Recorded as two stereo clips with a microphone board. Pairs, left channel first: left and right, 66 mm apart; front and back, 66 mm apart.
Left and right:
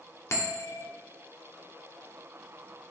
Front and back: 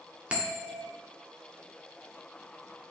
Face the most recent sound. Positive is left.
turn(degrees=115)